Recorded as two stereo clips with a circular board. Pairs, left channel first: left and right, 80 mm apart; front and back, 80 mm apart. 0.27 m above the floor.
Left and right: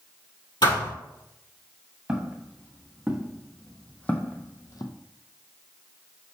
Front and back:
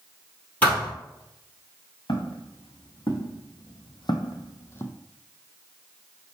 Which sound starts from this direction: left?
A thud, at 0.6 s.